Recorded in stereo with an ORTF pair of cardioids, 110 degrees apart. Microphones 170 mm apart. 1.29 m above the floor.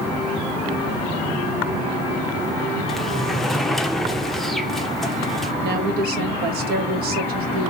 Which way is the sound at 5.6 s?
65° right.